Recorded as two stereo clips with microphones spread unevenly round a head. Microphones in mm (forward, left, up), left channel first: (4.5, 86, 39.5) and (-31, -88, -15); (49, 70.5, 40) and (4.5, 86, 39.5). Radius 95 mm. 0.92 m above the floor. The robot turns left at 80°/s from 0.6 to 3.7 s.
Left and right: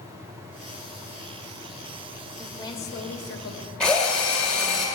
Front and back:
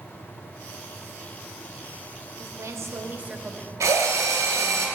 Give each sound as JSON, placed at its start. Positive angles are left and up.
{"t": 2.4, "sound": "a woman speaking", "azimuth_deg": 175, "distance_m": 1.6}
{"t": 3.8, "sound": "a drill", "azimuth_deg": 165, "distance_m": 2.5}